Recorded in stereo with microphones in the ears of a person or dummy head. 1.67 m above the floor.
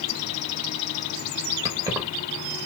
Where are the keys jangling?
15° right (ahead or behind), 1.6 m.